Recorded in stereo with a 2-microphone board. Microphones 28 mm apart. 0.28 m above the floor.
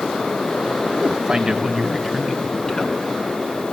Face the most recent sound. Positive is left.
turn(degrees=20)  # may be behind; listen again after turning